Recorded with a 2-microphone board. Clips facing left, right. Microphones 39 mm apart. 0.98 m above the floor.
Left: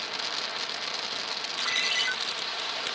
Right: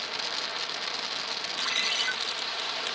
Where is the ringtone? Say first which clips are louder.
Left 2 dB; 30° left (ahead or behind), 1.8 m.